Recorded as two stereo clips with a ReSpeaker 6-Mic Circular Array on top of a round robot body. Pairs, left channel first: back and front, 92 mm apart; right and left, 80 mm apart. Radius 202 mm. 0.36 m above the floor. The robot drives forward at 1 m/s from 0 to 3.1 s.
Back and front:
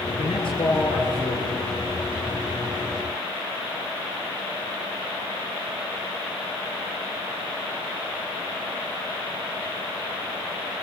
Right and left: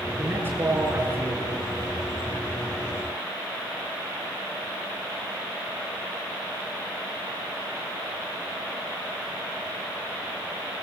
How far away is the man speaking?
About 6.5 m.